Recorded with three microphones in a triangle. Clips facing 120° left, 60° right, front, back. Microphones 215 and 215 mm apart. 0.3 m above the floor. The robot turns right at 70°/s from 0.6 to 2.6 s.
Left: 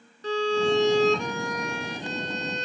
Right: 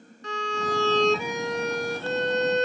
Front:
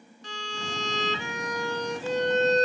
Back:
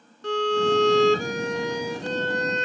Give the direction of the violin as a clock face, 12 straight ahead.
6 o'clock.